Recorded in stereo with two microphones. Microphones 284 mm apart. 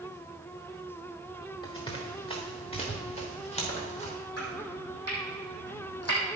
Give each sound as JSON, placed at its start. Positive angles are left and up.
{"t": 1.6, "sound": "running footsteps", "side_deg": 15, "distance_m": 2.5}
{"t": 4.4, "sound": "chopping", "side_deg": 60, "distance_m": 3.5}